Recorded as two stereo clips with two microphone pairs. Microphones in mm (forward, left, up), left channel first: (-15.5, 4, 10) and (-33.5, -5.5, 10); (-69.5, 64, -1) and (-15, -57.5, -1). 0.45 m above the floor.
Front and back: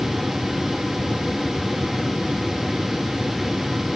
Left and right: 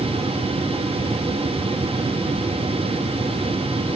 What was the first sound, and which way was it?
Only background noise.